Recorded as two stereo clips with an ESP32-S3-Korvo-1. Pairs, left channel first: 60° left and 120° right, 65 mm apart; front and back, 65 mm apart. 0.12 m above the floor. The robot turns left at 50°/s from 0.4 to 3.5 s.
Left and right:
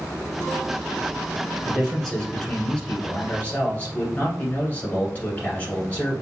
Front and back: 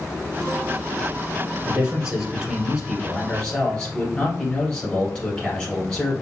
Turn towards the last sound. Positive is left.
turn(degrees=55)